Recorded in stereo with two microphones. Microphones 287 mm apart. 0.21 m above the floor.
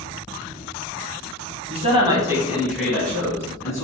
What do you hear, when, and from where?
1.7 s a man speaking: 25° right (ahead or behind), 1.0 m; by 3.8 s 10° left (ahead or behind), 1.7 m